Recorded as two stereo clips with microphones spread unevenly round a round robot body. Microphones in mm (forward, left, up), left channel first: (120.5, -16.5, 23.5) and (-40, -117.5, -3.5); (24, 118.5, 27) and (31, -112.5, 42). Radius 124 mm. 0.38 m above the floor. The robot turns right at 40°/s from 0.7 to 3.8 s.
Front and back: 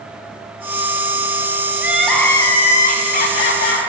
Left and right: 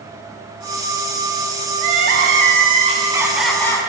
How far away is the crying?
About 0.9 m.